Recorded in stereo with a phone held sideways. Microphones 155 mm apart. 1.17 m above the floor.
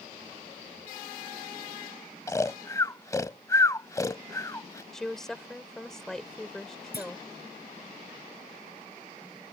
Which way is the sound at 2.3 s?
20° left (ahead or behind).